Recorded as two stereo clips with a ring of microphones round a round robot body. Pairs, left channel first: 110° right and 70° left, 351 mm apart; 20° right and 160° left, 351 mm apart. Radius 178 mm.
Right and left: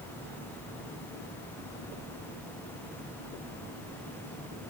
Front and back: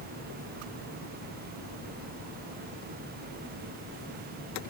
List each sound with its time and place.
Only background noise.